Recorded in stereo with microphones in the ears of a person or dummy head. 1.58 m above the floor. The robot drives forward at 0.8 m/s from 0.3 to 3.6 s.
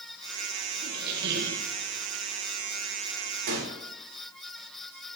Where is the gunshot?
65° right (ahead or behind), 2.5 m.